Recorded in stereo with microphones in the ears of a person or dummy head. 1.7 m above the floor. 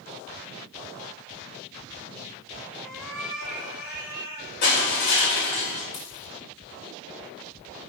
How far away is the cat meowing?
About 1.9 m.